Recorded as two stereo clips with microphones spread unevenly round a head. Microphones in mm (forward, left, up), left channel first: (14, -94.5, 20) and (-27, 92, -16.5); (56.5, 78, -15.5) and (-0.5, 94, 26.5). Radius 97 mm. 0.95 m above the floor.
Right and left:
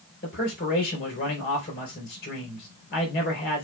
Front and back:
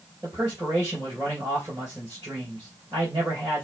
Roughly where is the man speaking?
Behind right.